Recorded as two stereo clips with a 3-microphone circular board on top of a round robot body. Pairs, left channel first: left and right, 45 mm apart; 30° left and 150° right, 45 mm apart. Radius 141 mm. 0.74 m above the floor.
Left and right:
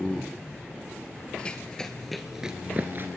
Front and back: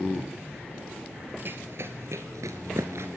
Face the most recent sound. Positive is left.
turn(degrees=-125)